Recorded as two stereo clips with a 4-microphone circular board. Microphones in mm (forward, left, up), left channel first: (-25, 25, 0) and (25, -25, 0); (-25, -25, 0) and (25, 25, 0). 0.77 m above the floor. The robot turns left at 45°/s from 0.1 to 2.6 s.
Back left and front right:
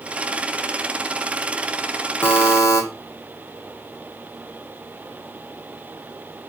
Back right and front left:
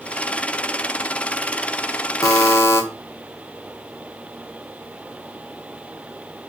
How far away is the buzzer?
About 0.7 m.